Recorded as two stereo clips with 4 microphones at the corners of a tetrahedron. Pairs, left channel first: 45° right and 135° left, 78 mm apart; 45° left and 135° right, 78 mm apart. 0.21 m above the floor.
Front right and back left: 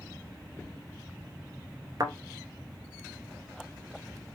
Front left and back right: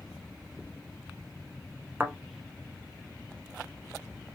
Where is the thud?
165° left, 0.8 m.